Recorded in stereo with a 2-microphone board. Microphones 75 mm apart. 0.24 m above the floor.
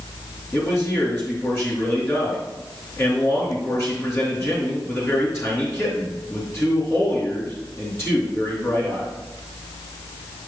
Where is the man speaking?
35° left (ahead or behind), 3.5 m.